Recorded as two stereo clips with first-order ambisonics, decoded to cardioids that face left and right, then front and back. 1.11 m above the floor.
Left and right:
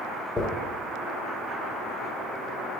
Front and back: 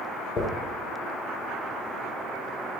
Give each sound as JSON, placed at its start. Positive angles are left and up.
{"t": 0.4, "sound": "a dropped coin", "azimuth_deg": 20, "distance_m": 0.9}